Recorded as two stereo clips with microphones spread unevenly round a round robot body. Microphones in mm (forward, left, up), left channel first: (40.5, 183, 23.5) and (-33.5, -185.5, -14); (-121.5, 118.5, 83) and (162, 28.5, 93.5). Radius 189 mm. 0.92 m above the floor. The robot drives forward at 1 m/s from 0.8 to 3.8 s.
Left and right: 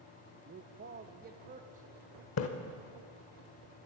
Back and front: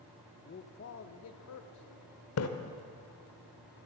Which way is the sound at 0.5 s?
155° right.